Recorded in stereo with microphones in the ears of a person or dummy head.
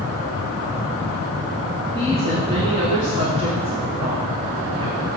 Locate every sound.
1.9 s a woman speaking: 30° right (ahead or behind), 1.2 m